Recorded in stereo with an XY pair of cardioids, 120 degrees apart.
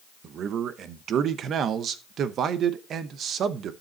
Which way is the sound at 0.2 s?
60° right.